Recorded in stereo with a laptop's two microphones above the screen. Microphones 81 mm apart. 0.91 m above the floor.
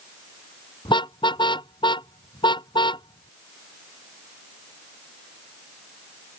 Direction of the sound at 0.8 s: 85° left.